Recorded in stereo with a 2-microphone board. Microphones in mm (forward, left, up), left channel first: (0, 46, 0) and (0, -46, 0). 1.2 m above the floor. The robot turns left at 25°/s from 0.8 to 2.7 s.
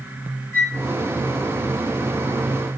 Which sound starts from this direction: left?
A flute, at 0.5 s.